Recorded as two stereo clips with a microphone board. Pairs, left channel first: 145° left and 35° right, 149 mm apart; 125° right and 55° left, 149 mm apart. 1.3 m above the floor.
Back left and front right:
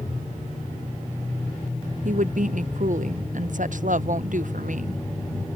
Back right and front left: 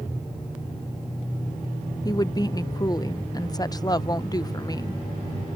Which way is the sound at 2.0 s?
60° right.